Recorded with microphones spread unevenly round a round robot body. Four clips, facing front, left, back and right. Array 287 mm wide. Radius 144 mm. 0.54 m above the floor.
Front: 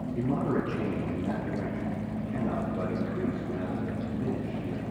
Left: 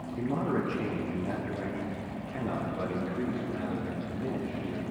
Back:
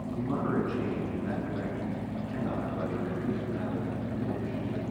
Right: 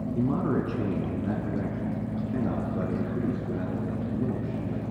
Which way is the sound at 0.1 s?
75° right.